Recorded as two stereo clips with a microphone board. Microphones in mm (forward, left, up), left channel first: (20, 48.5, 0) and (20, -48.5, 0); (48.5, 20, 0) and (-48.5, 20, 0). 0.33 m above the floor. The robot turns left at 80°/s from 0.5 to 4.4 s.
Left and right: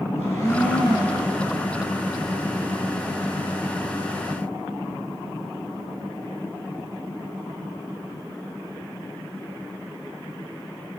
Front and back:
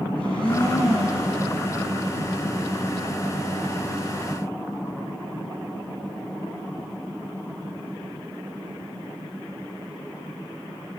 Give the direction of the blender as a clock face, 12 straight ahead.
11 o'clock.